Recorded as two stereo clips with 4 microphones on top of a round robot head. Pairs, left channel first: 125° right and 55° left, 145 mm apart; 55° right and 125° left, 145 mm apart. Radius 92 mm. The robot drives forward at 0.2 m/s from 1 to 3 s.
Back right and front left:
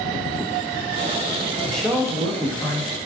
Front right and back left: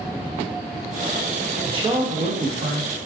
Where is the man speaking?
150° left, 0.6 m; by 2.9 s 160° left, 0.8 m.